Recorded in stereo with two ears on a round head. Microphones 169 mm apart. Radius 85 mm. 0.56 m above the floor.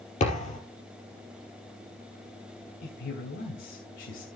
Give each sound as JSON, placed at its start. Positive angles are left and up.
{"t": 0.2, "sound": "a thud", "side_deg": 40, "distance_m": 3.5}
{"t": 2.8, "sound": "a man speaking", "side_deg": 70, "distance_m": 3.0}